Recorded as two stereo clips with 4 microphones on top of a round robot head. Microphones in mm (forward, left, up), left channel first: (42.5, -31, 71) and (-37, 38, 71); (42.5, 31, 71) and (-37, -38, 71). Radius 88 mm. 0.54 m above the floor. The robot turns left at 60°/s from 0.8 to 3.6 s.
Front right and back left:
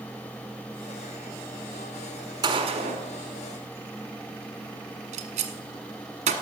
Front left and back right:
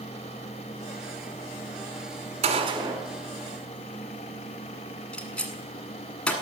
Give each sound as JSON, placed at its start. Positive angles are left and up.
{"t": 2.4, "sound": "a gunshot", "azimuth_deg": -165, "distance_m": 1.1}